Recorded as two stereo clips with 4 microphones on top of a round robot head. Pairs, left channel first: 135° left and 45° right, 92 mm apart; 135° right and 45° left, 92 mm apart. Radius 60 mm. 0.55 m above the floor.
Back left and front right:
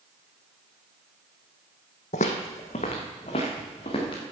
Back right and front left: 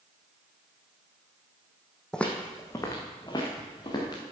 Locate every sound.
2.1 s footsteps: 145° left, 1.3 m; by 4.2 s 175° left, 4 m